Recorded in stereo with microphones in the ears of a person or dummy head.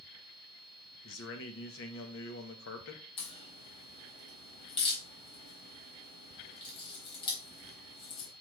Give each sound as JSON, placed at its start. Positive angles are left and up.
{"t": 1.0, "sound": "a man speaking", "side_deg": 60, "distance_m": 1.2}
{"t": 3.2, "sound": "a crack", "side_deg": 30, "distance_m": 3.5}